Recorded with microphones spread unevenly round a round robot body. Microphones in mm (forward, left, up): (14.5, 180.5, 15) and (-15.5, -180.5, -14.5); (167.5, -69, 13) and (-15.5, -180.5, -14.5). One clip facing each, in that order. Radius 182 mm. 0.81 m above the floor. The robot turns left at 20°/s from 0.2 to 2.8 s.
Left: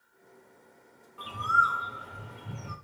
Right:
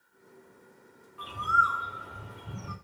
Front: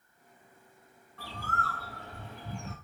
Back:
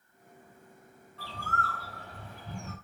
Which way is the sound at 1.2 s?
65° left.